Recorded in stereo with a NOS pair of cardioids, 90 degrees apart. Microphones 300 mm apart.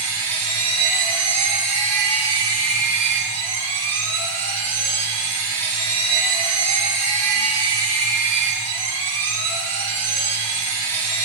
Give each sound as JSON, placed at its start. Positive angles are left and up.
{"t": 0.0, "sound": "a machine running", "azimuth_deg": -60, "distance_m": 4.0}